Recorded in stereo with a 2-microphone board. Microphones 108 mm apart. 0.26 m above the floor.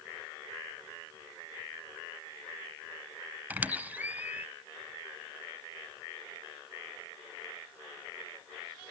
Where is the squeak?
15° right (ahead or behind), 0.7 m.